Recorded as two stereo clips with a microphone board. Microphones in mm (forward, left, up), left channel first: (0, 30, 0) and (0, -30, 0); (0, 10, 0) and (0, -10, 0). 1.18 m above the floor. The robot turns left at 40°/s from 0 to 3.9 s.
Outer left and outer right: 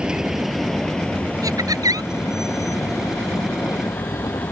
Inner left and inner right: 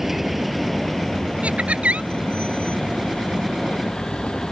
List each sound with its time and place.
0.0 s a vehicle: 15° right (ahead or behind); by 4.5 s 75° left (ahead or behind)
1.4 s laughter: 75° right (ahead or behind)